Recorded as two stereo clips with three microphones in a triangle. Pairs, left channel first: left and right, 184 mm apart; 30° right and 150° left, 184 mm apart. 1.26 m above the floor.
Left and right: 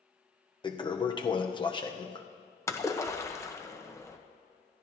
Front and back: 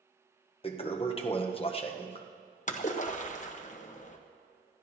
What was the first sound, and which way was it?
A toilet flushing, 25° left.